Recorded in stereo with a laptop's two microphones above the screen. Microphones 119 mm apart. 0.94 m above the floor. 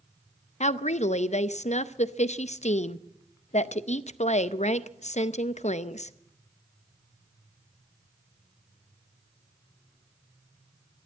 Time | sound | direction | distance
0.6 | a woman speaking | 75° left (ahead or behind) | 0.6 m